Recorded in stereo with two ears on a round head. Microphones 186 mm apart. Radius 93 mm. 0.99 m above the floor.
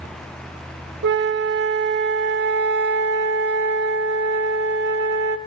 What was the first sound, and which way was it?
A flute, 55° right (ahead or behind).